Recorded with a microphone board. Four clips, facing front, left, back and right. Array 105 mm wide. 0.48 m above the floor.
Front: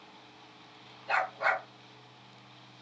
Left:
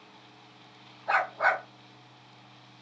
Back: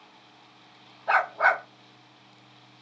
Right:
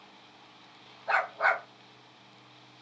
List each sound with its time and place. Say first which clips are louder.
1.1 s a dog barking: left 1 dB, back 7 dB; 175° left, 0.9 m